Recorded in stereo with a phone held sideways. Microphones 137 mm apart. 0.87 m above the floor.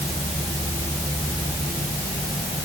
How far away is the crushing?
I don't hear crushing.